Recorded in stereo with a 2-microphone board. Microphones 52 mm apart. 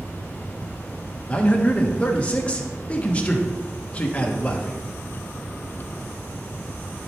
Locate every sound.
1.3 s a man speaking: 25° left (ahead or behind), 1.2 m